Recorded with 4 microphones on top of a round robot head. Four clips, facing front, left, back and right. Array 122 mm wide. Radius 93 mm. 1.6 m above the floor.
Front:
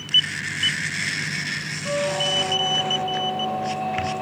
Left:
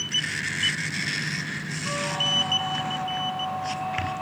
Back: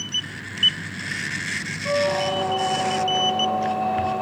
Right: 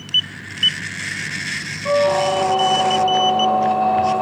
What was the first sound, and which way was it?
A squeak, 95° right.